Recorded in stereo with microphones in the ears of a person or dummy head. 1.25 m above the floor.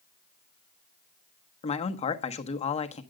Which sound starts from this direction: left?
A man speaking, at 1.6 s.